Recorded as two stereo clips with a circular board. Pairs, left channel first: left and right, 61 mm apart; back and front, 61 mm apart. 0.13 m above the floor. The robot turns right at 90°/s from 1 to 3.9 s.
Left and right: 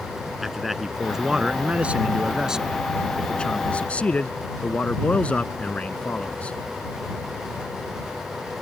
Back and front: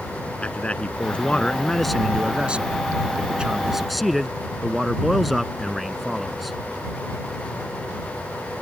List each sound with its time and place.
0.4 s a man speaking: 170° right; by 6.6 s 90° left